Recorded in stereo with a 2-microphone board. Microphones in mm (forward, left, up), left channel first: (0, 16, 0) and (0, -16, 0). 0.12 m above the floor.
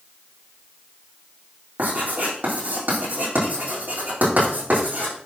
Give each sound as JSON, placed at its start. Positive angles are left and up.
{"t": 1.8, "sound": "writing", "side_deg": -60, "distance_m": 6.0}